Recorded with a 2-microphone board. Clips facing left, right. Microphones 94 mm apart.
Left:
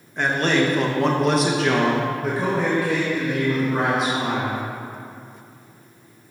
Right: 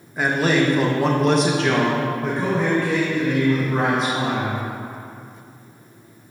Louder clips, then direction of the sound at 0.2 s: Right 1 dB; 5° right (ahead or behind).